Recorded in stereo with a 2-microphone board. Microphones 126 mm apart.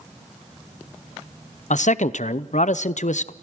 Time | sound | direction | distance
1.7 | a man speaking | 70° left (ahead or behind) | 0.6 m